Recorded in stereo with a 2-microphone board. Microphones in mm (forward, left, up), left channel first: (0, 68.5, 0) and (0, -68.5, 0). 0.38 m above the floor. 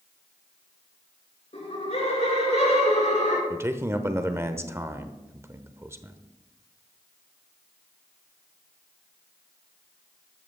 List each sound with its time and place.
1.5 s laughter: 50° left (ahead or behind), 5 m; by 3.4 s 60° left (ahead or behind), 4.5 m
3.5 s a man speaking: 20° right (ahead or behind), 0.9 m